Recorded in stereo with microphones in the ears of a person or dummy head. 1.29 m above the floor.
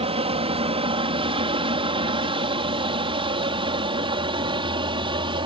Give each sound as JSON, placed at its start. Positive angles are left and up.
{"t": 0.0, "sound": "an aircraft", "side_deg": -30}